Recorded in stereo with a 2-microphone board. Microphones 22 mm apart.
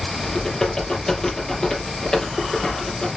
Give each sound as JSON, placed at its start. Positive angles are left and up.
{"t": 0.2, "sound": "typing on a keyboard", "side_deg": 30, "distance_m": 5.0}